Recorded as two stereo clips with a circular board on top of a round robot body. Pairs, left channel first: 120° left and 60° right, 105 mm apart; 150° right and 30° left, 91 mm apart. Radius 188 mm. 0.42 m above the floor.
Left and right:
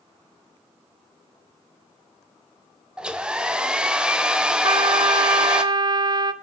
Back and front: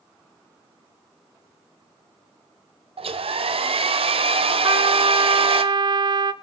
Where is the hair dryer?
20° left, 0.9 m.